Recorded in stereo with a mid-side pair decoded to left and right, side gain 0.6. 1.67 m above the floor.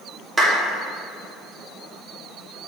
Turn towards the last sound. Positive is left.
turn(degrees=-20)